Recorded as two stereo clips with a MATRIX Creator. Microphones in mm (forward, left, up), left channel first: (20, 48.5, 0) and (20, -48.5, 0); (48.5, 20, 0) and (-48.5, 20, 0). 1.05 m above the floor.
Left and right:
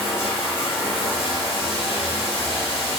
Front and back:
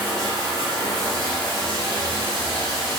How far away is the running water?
About 1.2 m.